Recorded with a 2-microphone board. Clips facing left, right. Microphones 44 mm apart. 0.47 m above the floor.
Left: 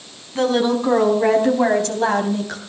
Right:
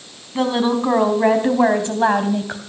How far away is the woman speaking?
About 4 m.